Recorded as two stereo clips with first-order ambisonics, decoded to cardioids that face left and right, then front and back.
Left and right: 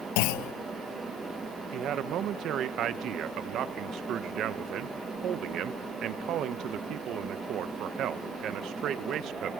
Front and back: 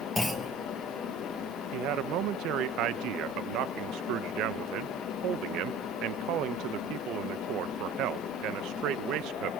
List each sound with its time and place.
0.2 s a clunk: 85° left, 0.6 m
1.7 s a man speaking: 140° right, 0.8 m